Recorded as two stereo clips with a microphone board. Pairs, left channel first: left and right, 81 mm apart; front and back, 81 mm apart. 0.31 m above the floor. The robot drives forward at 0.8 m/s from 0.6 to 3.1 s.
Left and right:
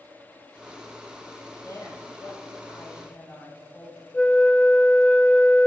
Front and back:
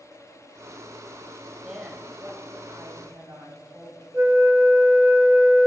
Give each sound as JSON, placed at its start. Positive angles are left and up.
{"t": 1.6, "sound": "a woman speaking", "azimuth_deg": 100, "distance_m": 1.5}
{"t": 4.1, "sound": "a flute", "azimuth_deg": 150, "distance_m": 0.9}